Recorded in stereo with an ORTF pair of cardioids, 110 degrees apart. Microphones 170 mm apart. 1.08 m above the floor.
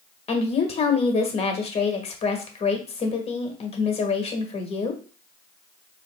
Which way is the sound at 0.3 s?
35° left.